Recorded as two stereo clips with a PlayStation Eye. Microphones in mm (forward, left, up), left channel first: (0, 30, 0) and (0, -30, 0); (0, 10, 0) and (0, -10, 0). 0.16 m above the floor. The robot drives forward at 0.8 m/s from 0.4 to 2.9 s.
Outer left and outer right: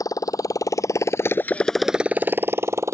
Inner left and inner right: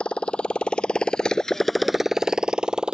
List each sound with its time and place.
0.0 s a motorcycle: 75° left (ahead or behind); by 2.9 s 55° right (ahead or behind)